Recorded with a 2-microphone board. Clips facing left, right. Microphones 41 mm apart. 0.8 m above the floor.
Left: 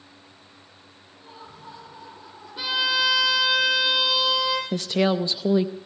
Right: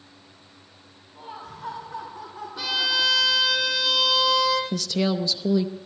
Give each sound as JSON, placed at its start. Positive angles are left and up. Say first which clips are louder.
{"t": 1.1, "sound": "laughter", "louder": "right 6 dB", "side_deg": -60, "distance_m": 5.5}
{"t": 2.6, "sound": "a violin", "louder": "left 1 dB", "side_deg": 15, "distance_m": 5.0}
{"t": 4.7, "sound": "a woman speaking", "louder": "left 2 dB", "side_deg": 25, "distance_m": 0.7}